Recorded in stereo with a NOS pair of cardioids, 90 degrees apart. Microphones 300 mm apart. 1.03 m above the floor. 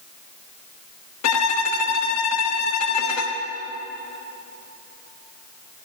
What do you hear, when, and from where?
1.2 s a violin: 65° left, 1.2 m